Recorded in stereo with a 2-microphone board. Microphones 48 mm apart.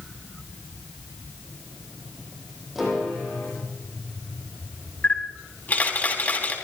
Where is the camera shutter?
35° left (ahead or behind), 3.5 m.